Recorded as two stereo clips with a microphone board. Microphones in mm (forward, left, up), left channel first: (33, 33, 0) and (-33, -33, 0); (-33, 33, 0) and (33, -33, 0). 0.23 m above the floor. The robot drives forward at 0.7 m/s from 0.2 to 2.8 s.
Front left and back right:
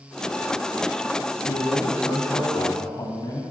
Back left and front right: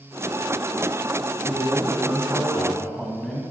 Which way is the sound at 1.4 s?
30° left.